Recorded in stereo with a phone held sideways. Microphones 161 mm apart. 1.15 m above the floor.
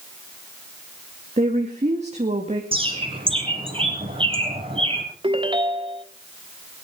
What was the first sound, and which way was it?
A woman speaking, 45° right (ahead or behind).